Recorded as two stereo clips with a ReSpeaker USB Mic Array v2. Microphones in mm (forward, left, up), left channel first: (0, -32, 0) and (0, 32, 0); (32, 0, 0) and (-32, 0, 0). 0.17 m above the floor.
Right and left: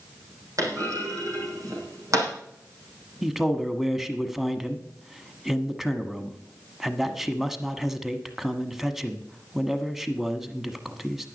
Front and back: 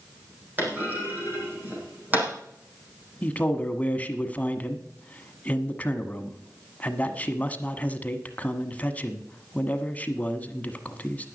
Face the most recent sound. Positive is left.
turn(degrees=10)